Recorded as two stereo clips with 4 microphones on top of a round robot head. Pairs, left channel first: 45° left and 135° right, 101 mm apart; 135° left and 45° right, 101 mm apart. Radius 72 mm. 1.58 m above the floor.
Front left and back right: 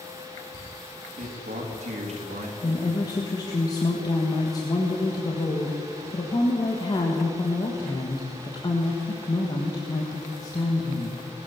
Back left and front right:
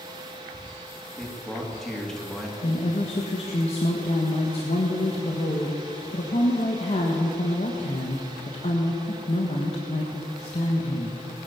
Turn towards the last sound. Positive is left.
turn(degrees=100)